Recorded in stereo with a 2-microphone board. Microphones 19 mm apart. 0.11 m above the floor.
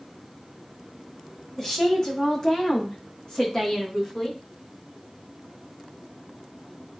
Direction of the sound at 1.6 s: 30° left (ahead or behind).